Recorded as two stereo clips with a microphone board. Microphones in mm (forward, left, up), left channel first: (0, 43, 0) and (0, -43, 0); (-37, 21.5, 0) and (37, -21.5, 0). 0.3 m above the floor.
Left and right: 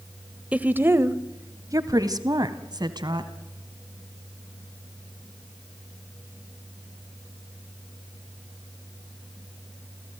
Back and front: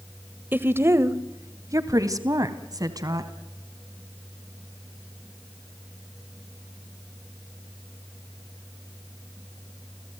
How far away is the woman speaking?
About 1.0 m.